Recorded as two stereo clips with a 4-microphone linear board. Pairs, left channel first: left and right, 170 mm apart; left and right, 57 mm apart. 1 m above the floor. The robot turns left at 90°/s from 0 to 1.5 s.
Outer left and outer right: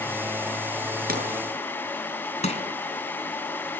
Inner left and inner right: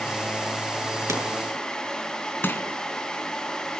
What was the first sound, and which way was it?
A pop, 60° right (ahead or behind).